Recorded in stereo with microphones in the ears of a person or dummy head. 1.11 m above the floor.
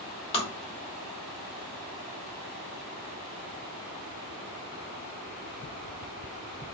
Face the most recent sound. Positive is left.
turn(degrees=25)  # may be behind; listen again after turning